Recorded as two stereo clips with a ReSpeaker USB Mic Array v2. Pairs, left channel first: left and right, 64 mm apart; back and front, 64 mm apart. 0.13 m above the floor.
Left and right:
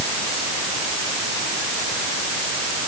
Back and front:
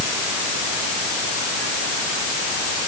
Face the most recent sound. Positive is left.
No sound to turn to.